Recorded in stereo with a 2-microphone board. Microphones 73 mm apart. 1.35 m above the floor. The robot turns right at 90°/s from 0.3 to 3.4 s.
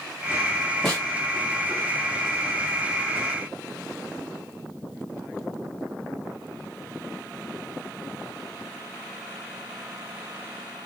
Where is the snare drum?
5° left (ahead or behind), 1.7 m; by 1.1 s 25° left (ahead or behind), 1.7 m.